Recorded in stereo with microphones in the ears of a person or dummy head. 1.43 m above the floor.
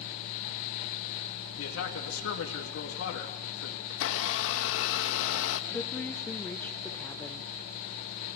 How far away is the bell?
No bell in this recording.